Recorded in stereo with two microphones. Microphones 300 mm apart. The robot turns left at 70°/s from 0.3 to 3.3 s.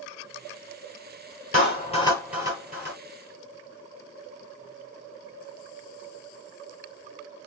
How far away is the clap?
About 3.5 m.